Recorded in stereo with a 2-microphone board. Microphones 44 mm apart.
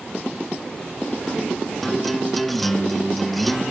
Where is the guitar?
5° left (ahead or behind), 0.7 m.